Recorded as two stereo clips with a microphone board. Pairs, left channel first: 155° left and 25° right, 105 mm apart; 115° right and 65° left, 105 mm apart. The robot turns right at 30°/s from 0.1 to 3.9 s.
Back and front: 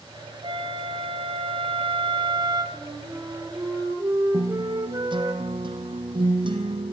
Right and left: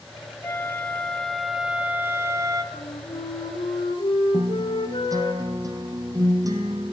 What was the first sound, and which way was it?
A flute, 50° right.